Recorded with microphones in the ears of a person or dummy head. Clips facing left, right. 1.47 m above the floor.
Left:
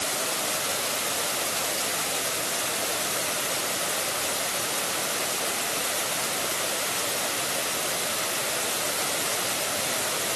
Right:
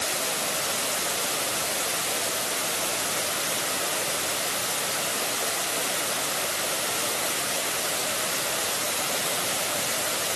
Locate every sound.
Only background noise.